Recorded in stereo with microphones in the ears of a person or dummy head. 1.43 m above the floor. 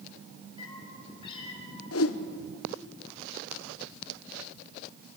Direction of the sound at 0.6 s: 30° left (ahead or behind).